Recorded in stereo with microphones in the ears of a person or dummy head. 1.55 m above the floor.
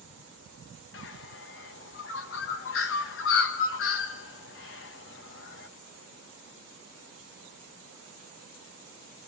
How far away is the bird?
About 1.2 m.